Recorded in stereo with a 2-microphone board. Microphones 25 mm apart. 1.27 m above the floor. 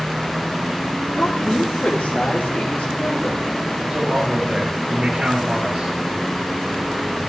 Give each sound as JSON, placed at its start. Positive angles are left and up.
{"t": 1.1, "sound": "a woman speaking", "side_deg": 80, "distance_m": 3.5}
{"t": 3.9, "sound": "a man speaking", "side_deg": -30, "distance_m": 5.5}